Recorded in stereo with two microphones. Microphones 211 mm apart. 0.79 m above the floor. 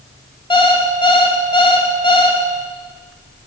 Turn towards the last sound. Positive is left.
turn(degrees=25)  # may be behind; listen again after turning